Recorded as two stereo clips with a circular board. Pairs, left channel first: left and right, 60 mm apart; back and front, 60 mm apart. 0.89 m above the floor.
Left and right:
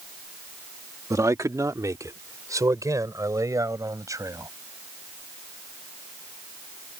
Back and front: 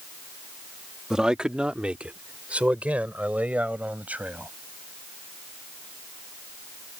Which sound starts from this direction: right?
A man speaking, at 1.1 s.